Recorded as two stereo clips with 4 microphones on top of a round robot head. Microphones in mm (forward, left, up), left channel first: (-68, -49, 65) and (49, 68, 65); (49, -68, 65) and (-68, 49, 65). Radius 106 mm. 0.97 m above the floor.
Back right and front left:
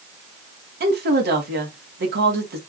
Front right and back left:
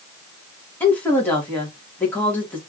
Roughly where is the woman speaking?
Ahead left.